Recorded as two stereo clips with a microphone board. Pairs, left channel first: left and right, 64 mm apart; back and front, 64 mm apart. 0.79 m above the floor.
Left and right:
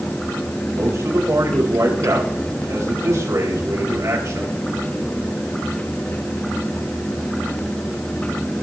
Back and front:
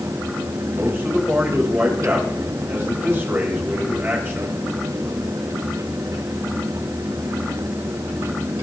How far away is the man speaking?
About 4.5 m.